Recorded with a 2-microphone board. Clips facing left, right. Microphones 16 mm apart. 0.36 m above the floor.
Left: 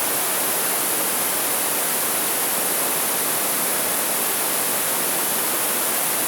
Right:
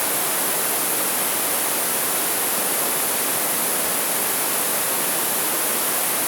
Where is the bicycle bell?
No bicycle bell in this recording.